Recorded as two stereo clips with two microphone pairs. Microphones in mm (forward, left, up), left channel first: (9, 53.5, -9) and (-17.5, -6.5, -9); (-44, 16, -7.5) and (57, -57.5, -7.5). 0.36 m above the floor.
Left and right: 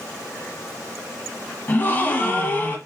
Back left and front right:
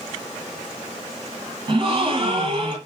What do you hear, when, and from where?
1.7 s a gasp: 10° left, 1.3 m